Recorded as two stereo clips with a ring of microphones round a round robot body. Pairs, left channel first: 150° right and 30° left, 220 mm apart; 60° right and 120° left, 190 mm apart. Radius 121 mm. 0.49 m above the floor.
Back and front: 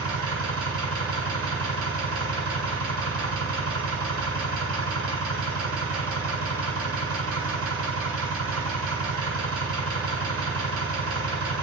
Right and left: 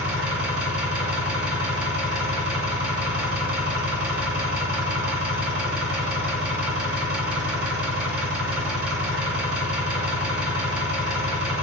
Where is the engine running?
40° left, 2.5 m.